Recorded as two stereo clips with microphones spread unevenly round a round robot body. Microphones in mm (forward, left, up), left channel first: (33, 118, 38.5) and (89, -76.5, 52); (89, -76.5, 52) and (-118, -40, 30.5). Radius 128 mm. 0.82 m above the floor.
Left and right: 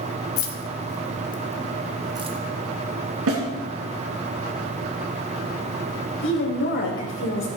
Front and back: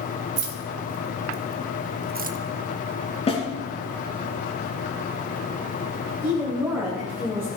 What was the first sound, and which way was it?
Keys jangling, 130° left.